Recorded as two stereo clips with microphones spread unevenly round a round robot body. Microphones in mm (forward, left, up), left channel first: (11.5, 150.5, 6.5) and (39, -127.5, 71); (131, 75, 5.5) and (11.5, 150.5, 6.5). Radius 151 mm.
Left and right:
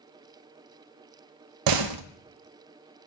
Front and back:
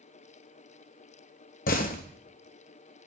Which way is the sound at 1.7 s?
75° right.